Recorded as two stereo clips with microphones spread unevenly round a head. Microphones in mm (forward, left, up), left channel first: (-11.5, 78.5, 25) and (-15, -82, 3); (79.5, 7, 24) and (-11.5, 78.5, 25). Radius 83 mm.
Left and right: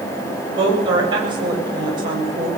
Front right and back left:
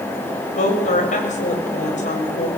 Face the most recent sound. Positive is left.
turn(degrees=-25)